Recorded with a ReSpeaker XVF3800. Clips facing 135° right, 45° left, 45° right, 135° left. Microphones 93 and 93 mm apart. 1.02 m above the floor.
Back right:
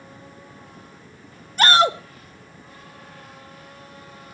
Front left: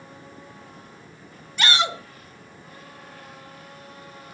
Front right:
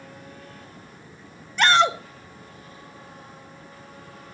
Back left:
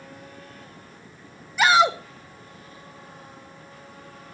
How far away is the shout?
About 1.0 m.